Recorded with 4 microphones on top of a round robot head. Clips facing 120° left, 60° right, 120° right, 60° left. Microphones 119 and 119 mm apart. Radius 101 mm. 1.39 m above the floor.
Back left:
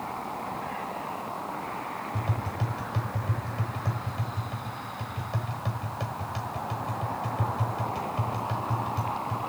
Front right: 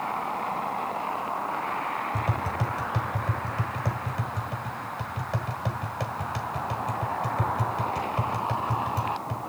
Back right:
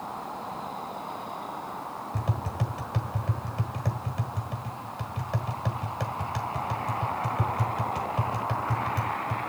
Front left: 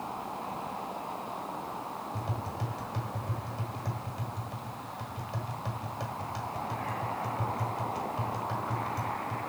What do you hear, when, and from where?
2.1 s tapping: 95° right, 1.4 m